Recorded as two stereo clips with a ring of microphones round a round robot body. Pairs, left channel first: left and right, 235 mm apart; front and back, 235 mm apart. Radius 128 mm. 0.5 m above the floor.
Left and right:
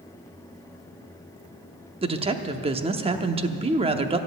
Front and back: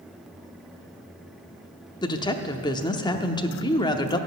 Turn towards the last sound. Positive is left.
turn(degrees=-55)